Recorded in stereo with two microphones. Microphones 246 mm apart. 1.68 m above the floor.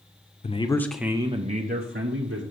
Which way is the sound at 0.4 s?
30° left (ahead or behind).